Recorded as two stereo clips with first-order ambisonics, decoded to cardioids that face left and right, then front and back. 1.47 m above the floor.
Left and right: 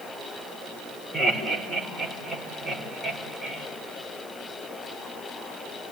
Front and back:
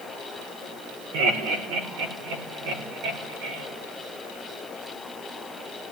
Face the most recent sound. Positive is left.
turn(degrees=-175)